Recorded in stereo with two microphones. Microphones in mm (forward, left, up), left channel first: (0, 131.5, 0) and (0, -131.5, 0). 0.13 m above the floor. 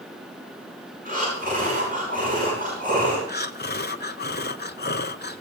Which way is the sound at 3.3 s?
40° left (ahead or behind).